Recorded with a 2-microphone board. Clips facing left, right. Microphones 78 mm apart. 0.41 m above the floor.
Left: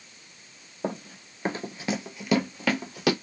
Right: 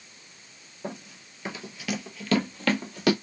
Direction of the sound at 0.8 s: 45° left (ahead or behind).